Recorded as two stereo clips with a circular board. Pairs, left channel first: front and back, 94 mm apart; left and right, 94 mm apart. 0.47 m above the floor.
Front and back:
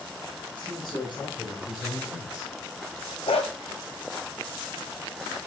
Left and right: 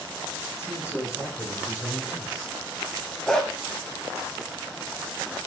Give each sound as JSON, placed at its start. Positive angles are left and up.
{"t": 0.5, "sound": "a man speaking", "azimuth_deg": 30, "distance_m": 4.5}
{"t": 3.3, "sound": "a dog barking", "azimuth_deg": 5, "distance_m": 1.2}